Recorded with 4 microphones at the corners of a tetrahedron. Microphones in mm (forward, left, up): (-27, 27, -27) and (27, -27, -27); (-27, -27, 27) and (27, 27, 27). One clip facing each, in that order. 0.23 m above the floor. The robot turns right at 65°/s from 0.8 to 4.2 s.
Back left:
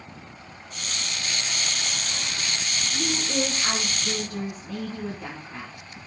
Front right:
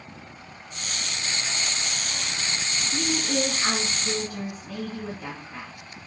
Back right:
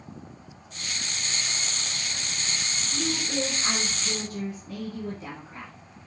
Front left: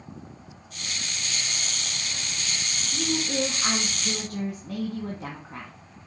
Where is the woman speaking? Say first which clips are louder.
Front right 1 dB, front left 2 dB; 35° right, 2.5 m; by 5.7 s 50° left, 2.5 m.